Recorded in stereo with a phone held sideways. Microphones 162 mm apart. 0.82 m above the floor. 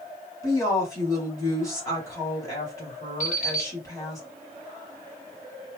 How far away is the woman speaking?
About 2 m.